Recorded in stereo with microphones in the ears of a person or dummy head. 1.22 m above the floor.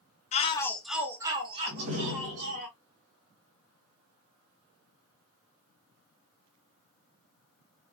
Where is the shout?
30° left (ahead or behind), 0.7 m; by 2.7 s 45° right (ahead or behind), 1.8 m.